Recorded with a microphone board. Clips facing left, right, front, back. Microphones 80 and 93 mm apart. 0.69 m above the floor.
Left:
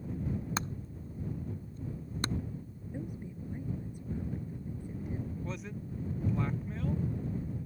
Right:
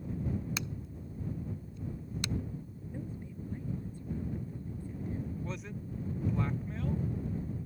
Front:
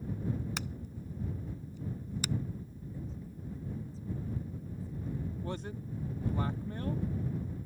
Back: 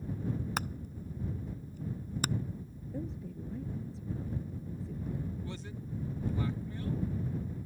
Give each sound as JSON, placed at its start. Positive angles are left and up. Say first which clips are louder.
{"t": 0.6, "sound": "hammering", "louder": "left 3 dB, back 3 dB", "azimuth_deg": 140}
{"t": 2.9, "sound": "a woman speaking", "louder": "left 2 dB, back 6 dB", "azimuth_deg": 165}
{"t": 5.4, "sound": "a man speaking", "louder": "even, front 3 dB", "azimuth_deg": 0}